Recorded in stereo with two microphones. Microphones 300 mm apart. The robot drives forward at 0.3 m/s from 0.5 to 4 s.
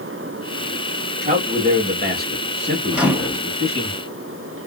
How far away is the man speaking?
About 1.9 m.